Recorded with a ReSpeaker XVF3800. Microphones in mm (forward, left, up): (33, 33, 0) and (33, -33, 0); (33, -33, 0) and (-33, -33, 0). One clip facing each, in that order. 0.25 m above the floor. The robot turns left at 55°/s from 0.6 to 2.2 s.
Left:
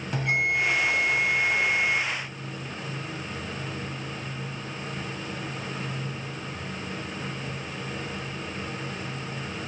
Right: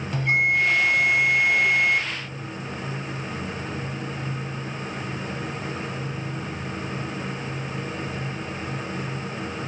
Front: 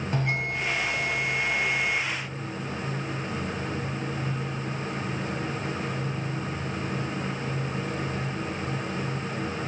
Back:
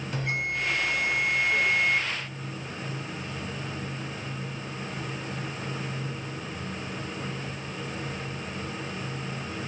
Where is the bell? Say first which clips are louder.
Right 4 dB, front 1 dB; 20° left, 1.8 m; by 2.0 s 60° right, 1.8 m.